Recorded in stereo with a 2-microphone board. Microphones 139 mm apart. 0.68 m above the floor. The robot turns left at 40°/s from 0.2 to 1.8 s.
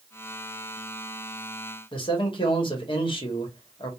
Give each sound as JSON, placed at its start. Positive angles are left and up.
{"t": 1.9, "sound": "a man speaking", "side_deg": 35, "distance_m": 1.0}